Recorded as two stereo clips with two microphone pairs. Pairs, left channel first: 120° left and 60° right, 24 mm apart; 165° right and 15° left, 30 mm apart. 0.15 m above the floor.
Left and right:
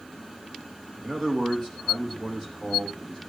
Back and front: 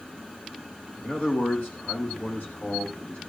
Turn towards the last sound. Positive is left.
turn(degrees=-155)